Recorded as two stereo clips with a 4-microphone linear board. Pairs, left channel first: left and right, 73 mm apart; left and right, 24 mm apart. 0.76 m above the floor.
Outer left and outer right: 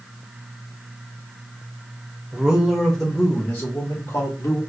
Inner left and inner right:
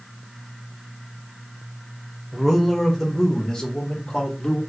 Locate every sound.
2.3 s a man speaking: 15° right (ahead or behind), 0.9 m; by 4.6 s 45° left (ahead or behind), 1.4 m